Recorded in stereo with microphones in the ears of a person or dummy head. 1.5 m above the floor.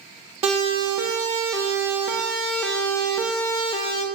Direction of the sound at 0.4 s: 30° right (ahead or behind).